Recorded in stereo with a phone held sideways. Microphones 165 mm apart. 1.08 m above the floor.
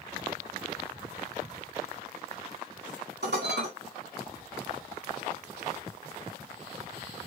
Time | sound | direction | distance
3.2 | dishes clattering | 90° right | 1.4 m